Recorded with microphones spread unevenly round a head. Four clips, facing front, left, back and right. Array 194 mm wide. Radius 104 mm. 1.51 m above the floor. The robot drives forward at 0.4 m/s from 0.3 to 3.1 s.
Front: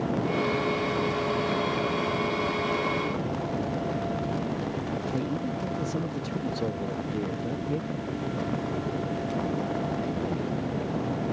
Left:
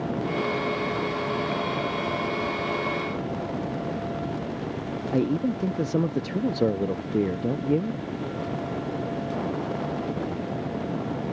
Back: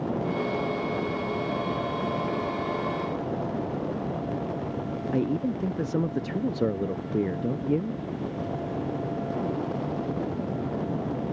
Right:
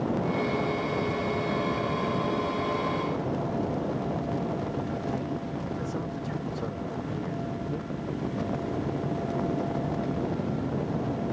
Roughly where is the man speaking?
Behind left.